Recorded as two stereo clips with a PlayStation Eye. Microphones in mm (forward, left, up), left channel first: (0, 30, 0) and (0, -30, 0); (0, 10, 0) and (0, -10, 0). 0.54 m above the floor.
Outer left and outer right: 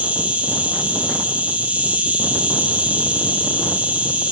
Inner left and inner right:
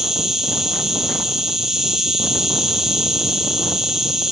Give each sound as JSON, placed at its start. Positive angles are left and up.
{"t": 0.0, "sound": "an insect", "side_deg": -25, "distance_m": 3.0}